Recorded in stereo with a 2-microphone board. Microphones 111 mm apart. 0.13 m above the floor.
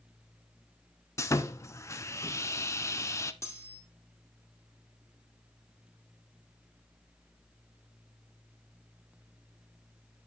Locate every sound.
1.2 s sawing: 25° left (ahead or behind), 0.6 m
3.4 s cutlery clinking: 25° left (ahead or behind), 2.5 m